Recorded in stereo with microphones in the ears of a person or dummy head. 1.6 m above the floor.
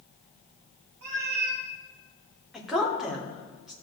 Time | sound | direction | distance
1.0 | a cat meowing | 50° right (ahead or behind) | 1.5 m
2.5 | a woman speaking | centre (ahead or behind) | 1.9 m